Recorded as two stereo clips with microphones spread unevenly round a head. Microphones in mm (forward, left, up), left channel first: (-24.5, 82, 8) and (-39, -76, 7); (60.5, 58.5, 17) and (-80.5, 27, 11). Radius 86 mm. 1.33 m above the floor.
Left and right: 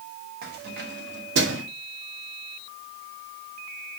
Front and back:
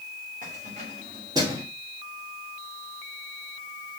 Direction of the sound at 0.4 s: 120° right.